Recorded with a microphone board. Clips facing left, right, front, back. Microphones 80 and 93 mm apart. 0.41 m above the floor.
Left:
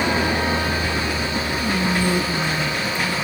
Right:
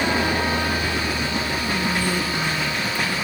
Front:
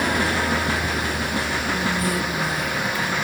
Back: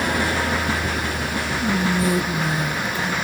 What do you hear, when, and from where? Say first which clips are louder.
1.6 s whispering: left 5 dB, back 3 dB; 145° left, 0.9 m